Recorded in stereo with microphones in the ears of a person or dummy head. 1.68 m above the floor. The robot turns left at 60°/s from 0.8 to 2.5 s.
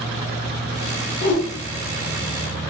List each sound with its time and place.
1.2 s a whoosh: 45° left (ahead or behind), 0.7 m; by 1.4 s 55° left (ahead or behind), 0.7 m